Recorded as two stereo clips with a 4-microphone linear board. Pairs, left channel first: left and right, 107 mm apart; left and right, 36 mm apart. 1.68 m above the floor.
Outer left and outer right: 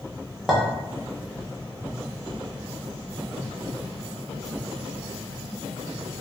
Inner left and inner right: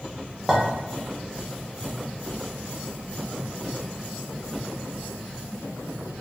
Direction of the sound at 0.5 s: Centre (ahead or behind).